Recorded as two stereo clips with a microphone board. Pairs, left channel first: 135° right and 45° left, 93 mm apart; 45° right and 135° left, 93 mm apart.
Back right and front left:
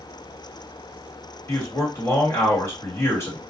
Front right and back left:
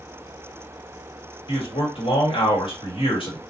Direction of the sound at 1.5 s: 70° right.